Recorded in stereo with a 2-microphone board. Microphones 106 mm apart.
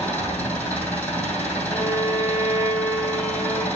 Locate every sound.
0.0 s an engine running: 15° left (ahead or behind), 2.5 m
1.7 s a violin: 20° left (ahead or behind), 1.9 m